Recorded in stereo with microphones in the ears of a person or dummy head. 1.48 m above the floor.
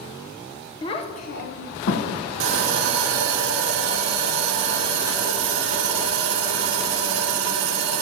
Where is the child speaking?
25° left (ahead or behind), 0.7 m; by 2.1 s 70° left (ahead or behind), 0.8 m.